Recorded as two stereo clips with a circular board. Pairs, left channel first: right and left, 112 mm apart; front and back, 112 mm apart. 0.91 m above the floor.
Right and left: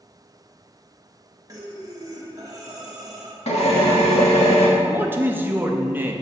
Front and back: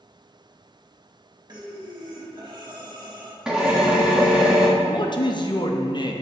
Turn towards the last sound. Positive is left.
turn(degrees=25)